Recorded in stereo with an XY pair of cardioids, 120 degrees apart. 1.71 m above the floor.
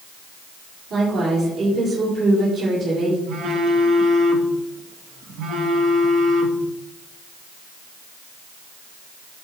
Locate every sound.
0.9 s a woman speaking: 55° right, 5 m
3.3 s a phone buzzing: 65° right, 2 m